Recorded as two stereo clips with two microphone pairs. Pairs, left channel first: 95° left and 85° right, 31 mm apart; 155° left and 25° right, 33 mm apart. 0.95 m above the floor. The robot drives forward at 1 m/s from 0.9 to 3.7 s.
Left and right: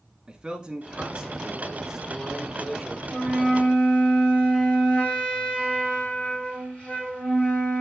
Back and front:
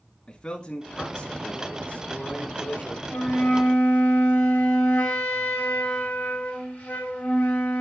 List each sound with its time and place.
0.3 s a man speaking: 160° right, 2.0 m; by 3.0 s 170° right, 4 m
3.1 s a flute: 150° left, 4.5 m; by 7.8 s 155° left, 5 m